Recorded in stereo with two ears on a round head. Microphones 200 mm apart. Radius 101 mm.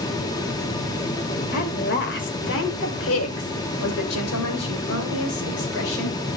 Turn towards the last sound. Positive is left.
turn(degrees=60)  # may be behind; listen again after turning